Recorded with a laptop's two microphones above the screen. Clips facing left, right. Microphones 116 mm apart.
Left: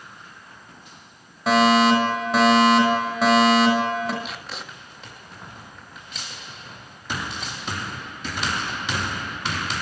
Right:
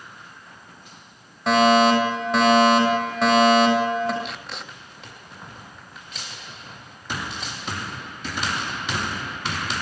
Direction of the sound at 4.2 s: Centre (ahead or behind).